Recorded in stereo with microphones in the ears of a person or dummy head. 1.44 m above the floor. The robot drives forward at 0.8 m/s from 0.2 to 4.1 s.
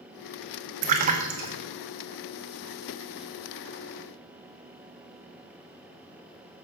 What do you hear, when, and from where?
0.8 s a splash: 50° right (ahead or behind), 1.2 m; by 1.6 s 35° right (ahead or behind), 1.6 m